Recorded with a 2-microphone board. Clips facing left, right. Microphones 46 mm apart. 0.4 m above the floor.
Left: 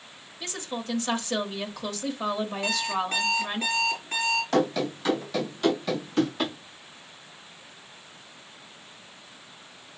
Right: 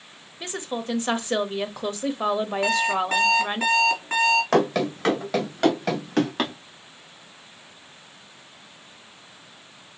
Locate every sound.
0.4 s a woman speaking: 30° right (ahead or behind), 1.3 m
2.6 s an alarm clock: 70° right (ahead or behind), 4 m
4.5 s running footsteps: 85° right, 3.5 m; by 6.5 s 80° right, 5.5 m